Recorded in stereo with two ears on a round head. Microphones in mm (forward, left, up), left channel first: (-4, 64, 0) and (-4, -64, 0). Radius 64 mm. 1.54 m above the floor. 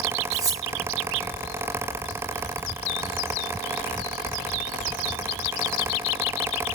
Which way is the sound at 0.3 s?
25° right (ahead or behind).